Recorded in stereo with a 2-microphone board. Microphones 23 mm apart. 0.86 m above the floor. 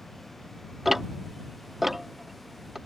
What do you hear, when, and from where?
0.8 s ticking: 10° right (ahead or behind)